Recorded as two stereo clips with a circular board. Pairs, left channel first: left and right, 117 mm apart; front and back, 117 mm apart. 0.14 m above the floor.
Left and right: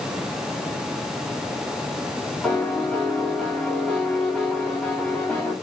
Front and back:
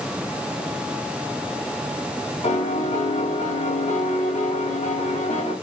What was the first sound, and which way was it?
A piano, 5° left.